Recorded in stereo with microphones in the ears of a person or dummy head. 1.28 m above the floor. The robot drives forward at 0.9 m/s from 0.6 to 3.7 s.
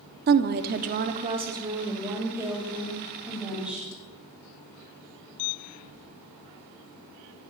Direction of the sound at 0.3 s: 45° right (ahead or behind).